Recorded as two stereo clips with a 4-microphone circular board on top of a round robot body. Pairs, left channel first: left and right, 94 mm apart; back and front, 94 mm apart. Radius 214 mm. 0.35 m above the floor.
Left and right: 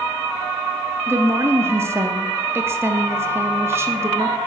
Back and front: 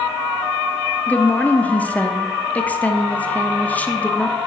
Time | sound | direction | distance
1.1 | a woman speaking | 120° right | 0.9 m